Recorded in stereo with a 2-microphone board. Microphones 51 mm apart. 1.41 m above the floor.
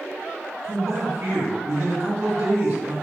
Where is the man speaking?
60° right (ahead or behind), 1.9 m.